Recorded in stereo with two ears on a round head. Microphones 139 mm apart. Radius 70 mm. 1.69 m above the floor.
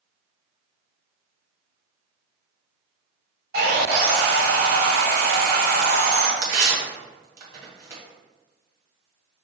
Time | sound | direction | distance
3.5 | sawing | 70° right (ahead or behind) | 1.3 m
6.4 | tearing paper | 20° right (ahead or behind) | 1.8 m